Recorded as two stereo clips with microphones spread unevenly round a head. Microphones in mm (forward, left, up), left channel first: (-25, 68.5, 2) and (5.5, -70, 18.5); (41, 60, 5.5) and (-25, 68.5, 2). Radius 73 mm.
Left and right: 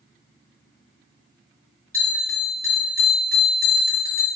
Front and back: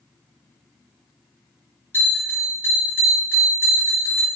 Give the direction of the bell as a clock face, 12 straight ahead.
12 o'clock.